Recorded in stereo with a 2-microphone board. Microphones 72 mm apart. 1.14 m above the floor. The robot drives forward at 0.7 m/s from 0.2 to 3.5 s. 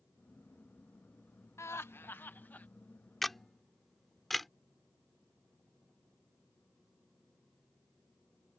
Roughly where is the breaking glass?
I don't hear breaking glass.